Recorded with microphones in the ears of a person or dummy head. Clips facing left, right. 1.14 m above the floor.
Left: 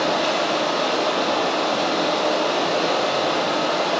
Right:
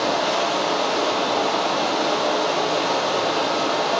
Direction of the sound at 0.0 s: 55° left (ahead or behind).